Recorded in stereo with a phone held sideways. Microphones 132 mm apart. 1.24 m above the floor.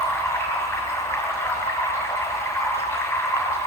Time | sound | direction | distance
0.0 | running water | 20° left (ahead or behind) | 4 m